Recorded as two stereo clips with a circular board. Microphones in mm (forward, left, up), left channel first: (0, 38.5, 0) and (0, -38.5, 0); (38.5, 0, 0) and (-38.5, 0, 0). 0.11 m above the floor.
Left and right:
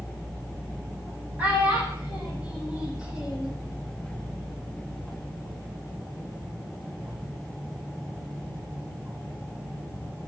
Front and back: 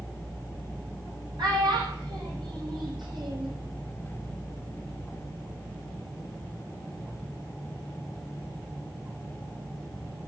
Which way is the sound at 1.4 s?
160° right.